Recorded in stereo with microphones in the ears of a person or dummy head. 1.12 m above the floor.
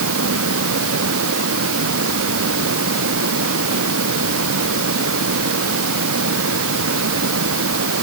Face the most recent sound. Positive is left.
turn(degrees=-80)